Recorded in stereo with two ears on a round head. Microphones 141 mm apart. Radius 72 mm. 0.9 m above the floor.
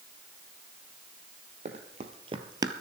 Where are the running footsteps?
45° right (ahead or behind), 1.3 m; by 2.7 s 20° right (ahead or behind), 0.9 m.